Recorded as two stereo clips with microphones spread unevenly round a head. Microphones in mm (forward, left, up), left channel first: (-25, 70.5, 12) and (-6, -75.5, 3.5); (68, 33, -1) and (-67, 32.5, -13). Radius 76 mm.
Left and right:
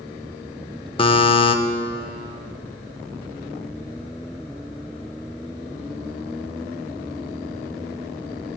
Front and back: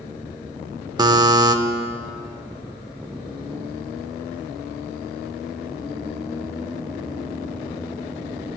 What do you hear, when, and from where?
1.0 s a buzzer: 130° left, 0.7 m